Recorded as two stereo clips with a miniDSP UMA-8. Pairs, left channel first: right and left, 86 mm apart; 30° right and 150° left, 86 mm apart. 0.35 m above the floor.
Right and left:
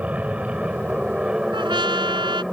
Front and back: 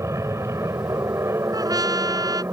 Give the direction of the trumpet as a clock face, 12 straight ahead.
8 o'clock.